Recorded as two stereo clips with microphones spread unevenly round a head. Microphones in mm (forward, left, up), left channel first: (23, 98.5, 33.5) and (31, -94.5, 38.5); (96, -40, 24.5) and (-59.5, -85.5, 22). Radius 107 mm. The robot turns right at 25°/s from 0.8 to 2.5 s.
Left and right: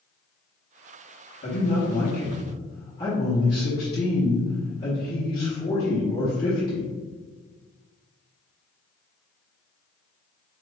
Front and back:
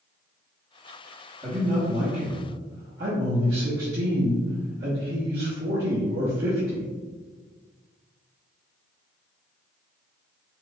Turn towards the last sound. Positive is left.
turn(degrees=165)